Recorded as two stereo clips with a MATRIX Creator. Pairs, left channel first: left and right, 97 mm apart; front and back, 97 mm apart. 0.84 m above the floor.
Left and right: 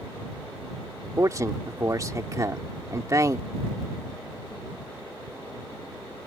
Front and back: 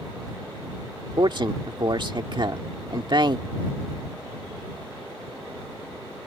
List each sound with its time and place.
1.2 s a man speaking: 145° right